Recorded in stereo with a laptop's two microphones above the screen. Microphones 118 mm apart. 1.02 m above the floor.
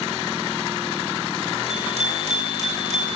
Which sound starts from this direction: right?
A bicycle bell, at 1.7 s.